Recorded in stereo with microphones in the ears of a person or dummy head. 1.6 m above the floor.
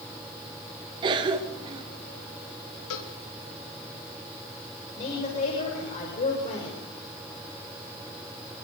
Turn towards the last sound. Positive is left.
turn(degrees=40)  # may be behind; listen again after turning